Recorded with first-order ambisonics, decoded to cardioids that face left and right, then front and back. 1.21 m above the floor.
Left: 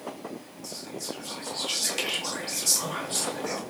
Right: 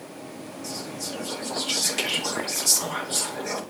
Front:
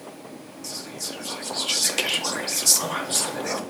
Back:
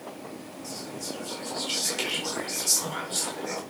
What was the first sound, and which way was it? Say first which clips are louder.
Whispering: right 2 dB, front 4 dB; straight ahead.